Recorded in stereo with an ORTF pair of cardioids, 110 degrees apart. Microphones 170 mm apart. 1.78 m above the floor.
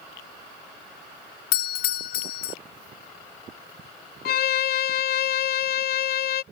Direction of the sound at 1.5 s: 60° left.